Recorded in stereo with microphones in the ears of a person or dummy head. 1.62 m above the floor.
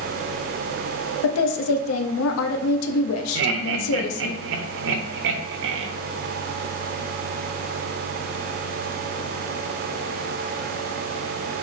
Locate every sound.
1.2 s a woman speaking: 85° left, 0.7 m
3.4 s laughter: 70° right (ahead or behind), 0.7 m